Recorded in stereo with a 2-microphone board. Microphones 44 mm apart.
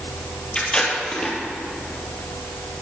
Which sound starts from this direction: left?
Tape being pulled, at 0.6 s.